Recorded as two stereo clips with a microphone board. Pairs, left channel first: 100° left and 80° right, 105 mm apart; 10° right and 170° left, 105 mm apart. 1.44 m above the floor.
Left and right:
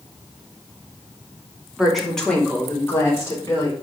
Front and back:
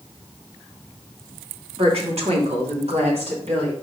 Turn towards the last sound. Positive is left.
turn(degrees=160)